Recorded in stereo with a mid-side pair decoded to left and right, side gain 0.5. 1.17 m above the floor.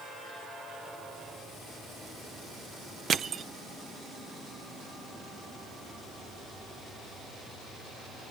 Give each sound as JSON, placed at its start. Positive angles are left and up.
{"t": 3.1, "sound": "crushing", "azimuth_deg": -50, "distance_m": 0.7}